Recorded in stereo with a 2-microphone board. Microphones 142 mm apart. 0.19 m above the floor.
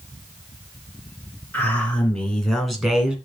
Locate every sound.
1.5 s a man speaking: 10° left (ahead or behind), 3 m; by 3.1 s 10° right (ahead or behind), 1.9 m